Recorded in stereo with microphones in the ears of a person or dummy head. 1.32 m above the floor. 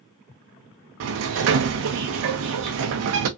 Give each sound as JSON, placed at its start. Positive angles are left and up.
{"t": 1.0, "sound": "a sliding door", "side_deg": -70, "distance_m": 0.6}